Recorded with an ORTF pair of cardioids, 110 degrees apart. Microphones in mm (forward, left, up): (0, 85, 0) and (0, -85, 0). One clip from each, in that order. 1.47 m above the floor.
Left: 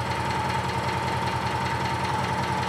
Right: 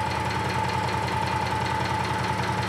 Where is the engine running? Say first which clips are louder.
Even; 10° right, 0.8 m.